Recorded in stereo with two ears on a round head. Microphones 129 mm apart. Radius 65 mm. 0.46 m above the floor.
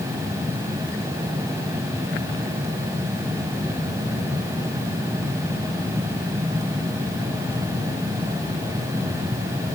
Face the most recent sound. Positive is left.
No sound to turn to.